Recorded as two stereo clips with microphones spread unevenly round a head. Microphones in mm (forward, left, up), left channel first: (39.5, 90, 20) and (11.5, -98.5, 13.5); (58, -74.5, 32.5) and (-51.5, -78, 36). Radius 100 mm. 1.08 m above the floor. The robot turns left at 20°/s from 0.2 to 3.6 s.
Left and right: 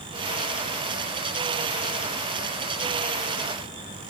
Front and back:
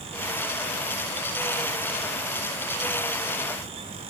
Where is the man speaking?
I don't hear a man speaking.